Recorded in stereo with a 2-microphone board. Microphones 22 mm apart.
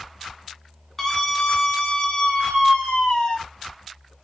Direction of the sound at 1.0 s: 20° left (ahead or behind).